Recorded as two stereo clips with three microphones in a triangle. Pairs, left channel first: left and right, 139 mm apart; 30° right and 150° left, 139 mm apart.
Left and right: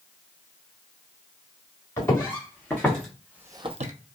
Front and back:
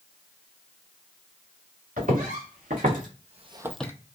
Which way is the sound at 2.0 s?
160° left.